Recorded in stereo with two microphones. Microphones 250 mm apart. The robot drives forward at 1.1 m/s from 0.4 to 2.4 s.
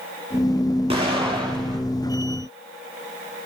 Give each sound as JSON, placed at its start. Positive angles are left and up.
{"t": 0.9, "sound": "an explosion", "side_deg": -20, "distance_m": 6.5}